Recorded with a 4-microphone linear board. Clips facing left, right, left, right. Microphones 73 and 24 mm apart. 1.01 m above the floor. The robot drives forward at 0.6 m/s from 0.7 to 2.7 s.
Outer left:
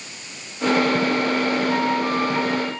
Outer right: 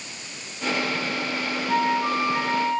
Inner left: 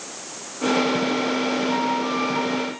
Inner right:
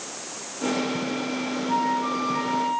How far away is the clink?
No clink in this recording.